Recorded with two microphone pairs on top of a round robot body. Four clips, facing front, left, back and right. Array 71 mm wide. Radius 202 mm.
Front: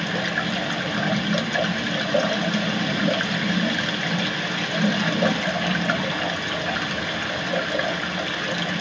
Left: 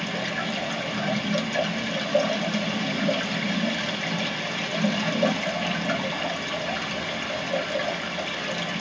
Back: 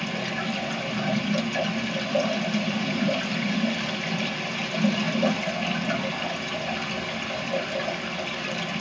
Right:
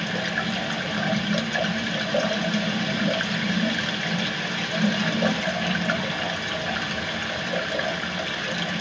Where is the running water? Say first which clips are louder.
Right 2 dB, front 4 dB; 15° right, 3 m.